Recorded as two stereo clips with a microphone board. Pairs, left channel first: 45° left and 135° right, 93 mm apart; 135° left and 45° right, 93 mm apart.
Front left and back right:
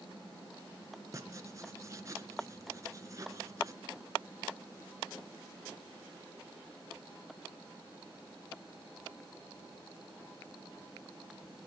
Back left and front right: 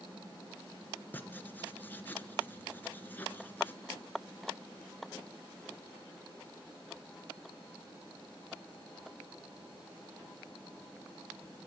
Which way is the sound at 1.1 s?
165° right.